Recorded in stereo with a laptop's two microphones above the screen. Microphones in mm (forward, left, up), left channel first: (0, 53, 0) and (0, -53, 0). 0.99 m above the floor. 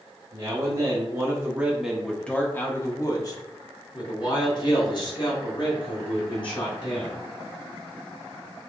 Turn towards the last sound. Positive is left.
turn(degrees=50)  # may be behind; listen again after turning